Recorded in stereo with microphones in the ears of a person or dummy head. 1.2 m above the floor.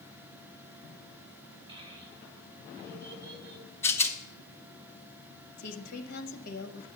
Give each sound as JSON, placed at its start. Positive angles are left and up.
{"t": 1.7, "sound": "a child speaking", "side_deg": -20, "distance_m": 3.0}
{"t": 3.8, "sound": "a rattle", "side_deg": 15, "distance_m": 0.8}
{"t": 5.6, "sound": "a woman speaking", "side_deg": 65, "distance_m": 1.2}